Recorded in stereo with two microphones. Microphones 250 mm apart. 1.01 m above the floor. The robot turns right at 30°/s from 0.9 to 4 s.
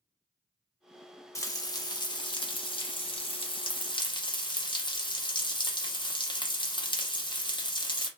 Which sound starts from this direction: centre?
Frying, at 1.4 s.